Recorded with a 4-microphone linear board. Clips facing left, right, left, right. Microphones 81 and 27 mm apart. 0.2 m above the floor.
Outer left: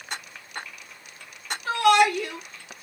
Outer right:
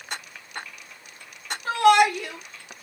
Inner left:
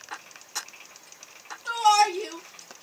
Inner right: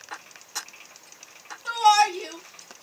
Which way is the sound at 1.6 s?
30° right (ahead or behind).